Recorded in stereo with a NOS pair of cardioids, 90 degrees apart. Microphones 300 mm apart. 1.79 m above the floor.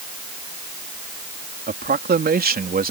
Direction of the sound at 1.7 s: 30° right.